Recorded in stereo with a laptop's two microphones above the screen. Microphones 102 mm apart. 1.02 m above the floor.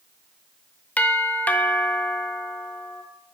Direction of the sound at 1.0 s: 15° left (ahead or behind).